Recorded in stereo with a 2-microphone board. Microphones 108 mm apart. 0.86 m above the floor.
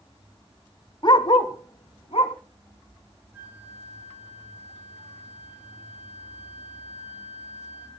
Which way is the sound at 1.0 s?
45° left (ahead or behind).